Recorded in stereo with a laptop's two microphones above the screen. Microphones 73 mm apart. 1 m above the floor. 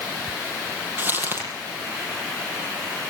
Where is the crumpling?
30° right (ahead or behind), 9 m.